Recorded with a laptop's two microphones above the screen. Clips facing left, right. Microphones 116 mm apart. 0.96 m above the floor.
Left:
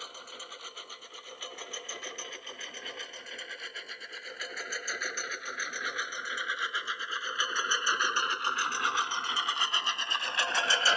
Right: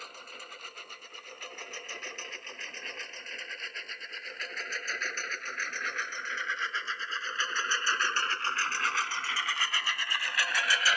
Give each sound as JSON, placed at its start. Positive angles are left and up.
{"t": 0.0, "sound": "a lawn mower", "side_deg": 5}